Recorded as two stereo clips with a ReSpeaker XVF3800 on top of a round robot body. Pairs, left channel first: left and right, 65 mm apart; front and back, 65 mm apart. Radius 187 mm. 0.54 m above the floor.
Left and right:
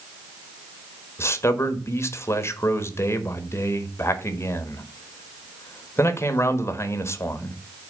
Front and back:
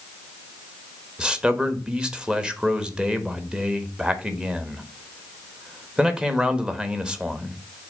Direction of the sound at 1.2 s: 110° left.